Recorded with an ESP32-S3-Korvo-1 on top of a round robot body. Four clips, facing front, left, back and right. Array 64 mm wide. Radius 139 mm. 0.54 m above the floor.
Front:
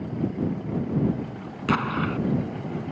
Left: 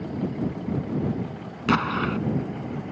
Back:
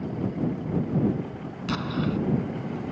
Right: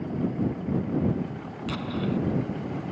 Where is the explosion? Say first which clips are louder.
Left 6 dB, front 3 dB; 65° left.